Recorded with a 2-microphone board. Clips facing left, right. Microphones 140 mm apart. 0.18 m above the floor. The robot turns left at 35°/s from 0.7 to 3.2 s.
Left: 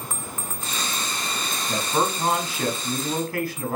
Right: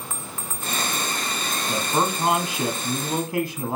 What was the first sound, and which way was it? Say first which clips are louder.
A man speaking: even; 10° right (ahead or behind).